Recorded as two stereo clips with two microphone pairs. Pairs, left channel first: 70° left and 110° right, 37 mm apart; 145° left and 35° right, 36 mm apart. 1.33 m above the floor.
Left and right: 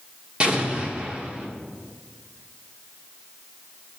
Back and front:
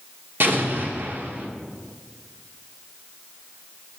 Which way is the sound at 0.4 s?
55° right.